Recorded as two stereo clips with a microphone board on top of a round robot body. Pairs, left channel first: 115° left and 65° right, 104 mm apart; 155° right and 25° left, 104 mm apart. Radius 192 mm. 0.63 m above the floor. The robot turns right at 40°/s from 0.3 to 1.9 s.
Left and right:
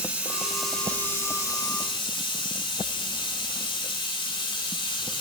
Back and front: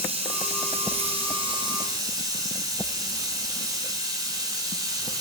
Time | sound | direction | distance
0.0 | running water | 10° left | 7.5 m